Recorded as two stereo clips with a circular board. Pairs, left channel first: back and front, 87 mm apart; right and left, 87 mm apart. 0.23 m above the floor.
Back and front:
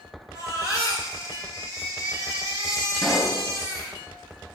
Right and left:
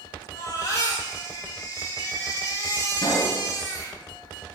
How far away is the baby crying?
About 3 m.